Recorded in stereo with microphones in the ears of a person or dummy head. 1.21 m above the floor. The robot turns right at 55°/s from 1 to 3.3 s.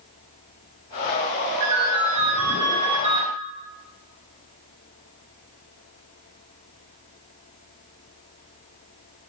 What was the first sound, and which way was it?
A ringtone, 110° right.